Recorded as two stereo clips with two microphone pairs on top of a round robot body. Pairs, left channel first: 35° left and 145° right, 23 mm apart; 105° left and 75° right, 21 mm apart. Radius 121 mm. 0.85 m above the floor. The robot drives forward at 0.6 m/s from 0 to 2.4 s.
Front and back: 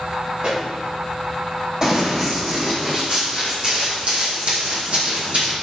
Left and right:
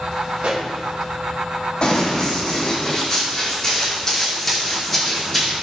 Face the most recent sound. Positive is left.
turn(degrees=-165)